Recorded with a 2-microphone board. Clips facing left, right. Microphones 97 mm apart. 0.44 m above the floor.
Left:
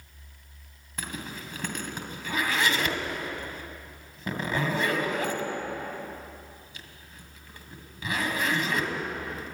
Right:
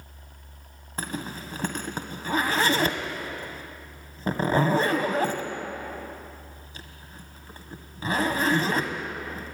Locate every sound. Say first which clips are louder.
1.0 s a zipper: right 4 dB; 35° right (ahead or behind), 1.7 m